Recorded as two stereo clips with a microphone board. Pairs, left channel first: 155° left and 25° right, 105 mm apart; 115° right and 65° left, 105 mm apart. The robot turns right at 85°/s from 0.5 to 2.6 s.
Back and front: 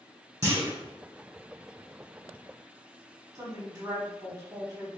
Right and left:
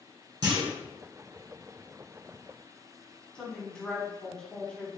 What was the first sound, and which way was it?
A clunk, 30° left.